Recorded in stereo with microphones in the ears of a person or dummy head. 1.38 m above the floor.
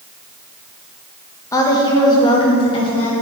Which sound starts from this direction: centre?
A woman speaking, at 1.5 s.